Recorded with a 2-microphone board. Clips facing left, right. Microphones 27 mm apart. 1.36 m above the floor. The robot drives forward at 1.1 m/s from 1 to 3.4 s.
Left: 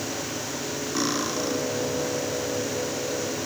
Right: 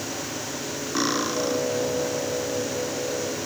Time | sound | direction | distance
0.9 | cutlery clinking | 15° right (ahead or behind) | 0.5 m